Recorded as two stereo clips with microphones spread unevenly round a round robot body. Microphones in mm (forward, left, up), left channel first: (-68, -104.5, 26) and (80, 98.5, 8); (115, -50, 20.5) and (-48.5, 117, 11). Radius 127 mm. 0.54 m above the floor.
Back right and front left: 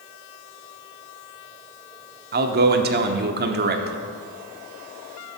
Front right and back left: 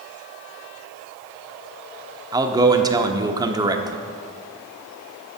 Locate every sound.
2.3 s a man speaking: 70° left, 1.0 m